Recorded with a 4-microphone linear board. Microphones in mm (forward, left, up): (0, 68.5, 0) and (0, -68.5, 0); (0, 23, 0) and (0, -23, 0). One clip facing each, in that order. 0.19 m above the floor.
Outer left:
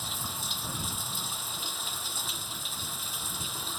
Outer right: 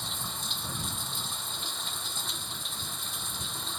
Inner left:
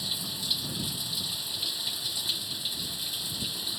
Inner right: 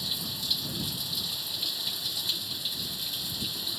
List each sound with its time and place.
0.0 s running water: 5° left (ahead or behind)